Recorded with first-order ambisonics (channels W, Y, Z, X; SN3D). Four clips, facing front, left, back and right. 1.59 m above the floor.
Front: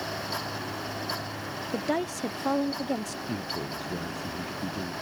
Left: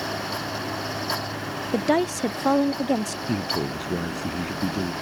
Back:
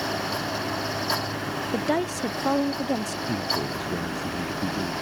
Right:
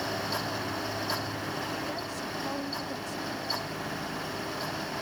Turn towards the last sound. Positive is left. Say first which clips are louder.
# left 9 dB, back 7 dB
turn(degrees=105)